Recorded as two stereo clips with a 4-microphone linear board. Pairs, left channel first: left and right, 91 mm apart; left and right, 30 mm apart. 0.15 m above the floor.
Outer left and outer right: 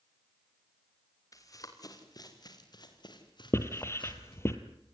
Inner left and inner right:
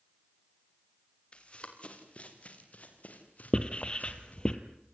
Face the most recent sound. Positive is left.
turn(degrees=30)  # may be behind; listen again after turning